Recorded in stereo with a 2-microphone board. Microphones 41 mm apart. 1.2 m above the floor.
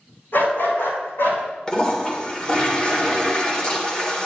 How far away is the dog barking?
About 4.5 m.